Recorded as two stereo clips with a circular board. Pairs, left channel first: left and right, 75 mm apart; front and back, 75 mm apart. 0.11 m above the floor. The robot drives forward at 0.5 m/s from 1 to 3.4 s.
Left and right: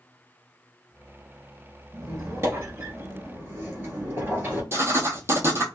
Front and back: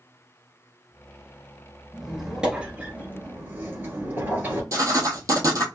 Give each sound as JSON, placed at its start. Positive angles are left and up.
{"t": 1.9, "sound": "a squeak", "azimuth_deg": -90, "distance_m": 1.3}
{"t": 4.7, "sound": "writing", "azimuth_deg": -140, "distance_m": 0.9}